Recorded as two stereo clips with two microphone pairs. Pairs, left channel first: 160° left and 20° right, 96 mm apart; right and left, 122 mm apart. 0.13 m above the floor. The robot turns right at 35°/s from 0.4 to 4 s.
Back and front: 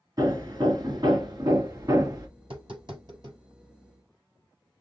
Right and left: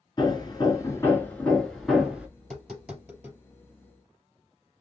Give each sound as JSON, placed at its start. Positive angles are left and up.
{"t": 0.2, "sound": "hammering", "azimuth_deg": -50, "distance_m": 1.6}
{"t": 2.4, "sound": "tapping", "azimuth_deg": -10, "distance_m": 4.0}